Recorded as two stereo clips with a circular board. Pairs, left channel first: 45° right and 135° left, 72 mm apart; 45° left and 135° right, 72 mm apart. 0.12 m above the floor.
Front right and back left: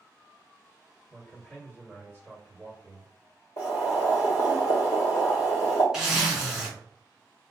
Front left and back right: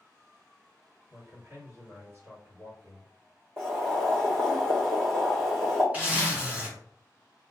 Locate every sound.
1.1 s a man speaking: 95° right, 2.0 m
3.6 s boiling: 80° right, 1.5 m
5.9 s a zipper: 160° right, 1.2 m